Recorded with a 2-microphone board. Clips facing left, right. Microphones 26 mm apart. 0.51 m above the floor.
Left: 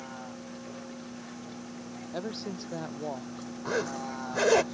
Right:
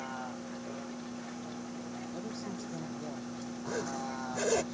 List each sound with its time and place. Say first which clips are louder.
0.0 s a vehicle: right 2 dB; 10° right (ahead or behind); by 4.7 s 15° left (ahead or behind)
2.1 s a woman speaking: left 8 dB; 50° left (ahead or behind)
3.6 s a zipper: left 5 dB; 35° left (ahead or behind)